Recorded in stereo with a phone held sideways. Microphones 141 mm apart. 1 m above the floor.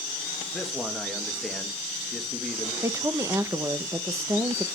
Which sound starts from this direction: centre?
A man speaking, at 0.5 s.